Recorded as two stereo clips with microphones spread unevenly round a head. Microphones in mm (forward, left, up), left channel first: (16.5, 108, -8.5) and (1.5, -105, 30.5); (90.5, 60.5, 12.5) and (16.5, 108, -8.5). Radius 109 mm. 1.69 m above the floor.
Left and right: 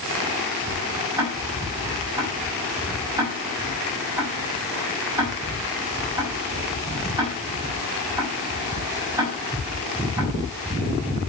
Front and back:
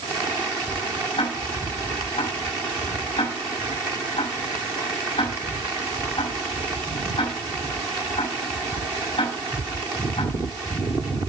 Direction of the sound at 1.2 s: 20° right.